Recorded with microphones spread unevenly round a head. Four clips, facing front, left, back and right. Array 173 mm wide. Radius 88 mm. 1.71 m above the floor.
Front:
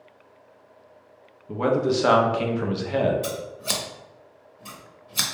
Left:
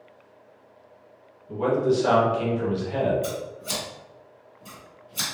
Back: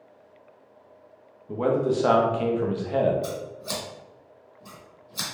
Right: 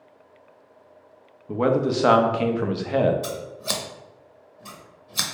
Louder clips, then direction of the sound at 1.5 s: Right 1 dB, front 1 dB; 85° right.